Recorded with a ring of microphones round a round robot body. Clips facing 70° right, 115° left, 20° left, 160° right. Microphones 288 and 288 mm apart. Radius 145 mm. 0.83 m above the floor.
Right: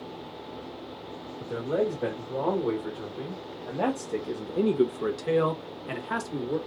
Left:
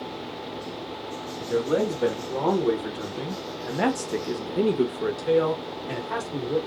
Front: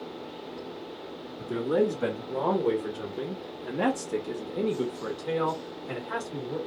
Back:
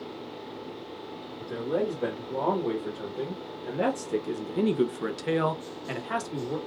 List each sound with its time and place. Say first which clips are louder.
1.4 s a man speaking: left 4 dB, front 4 dB; 70° left, 1.8 m; by 6.6 s 130° right, 1.4 m